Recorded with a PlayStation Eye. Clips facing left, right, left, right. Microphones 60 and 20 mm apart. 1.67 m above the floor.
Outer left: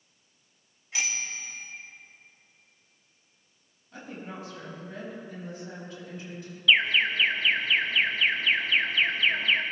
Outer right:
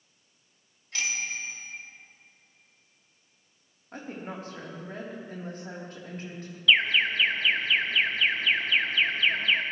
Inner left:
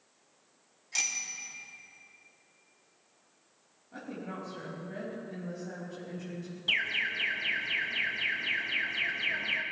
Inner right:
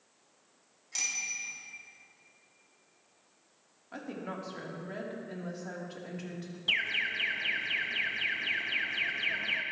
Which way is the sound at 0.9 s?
15° left (ahead or behind).